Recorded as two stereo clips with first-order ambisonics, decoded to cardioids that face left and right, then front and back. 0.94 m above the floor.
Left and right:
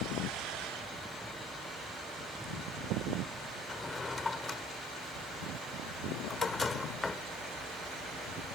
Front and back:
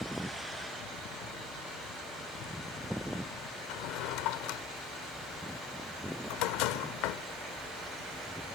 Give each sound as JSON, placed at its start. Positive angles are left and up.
{"t": 3.7, "sound": "a drawer", "azimuth_deg": 15}